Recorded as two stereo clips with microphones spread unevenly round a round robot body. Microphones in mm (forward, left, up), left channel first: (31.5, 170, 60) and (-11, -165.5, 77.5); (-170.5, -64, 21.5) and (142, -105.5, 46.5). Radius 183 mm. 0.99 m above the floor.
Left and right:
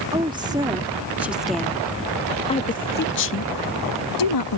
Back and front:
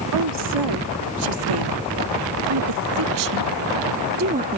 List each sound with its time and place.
0.1 s a woman speaking: 20° right; by 4.6 s 65° left